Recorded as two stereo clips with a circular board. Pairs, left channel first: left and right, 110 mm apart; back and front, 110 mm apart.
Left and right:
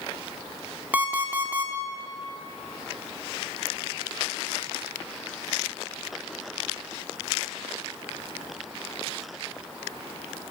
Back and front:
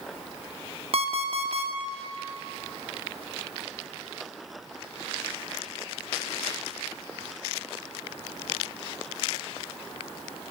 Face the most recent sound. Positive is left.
turn(degrees=-15)